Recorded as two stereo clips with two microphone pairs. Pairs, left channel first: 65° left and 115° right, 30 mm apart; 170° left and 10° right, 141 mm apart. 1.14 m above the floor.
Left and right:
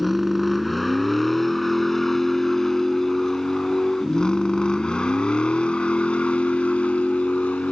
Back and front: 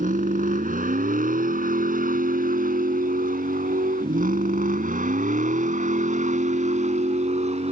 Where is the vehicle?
30° right; by 7.7 s 25° left.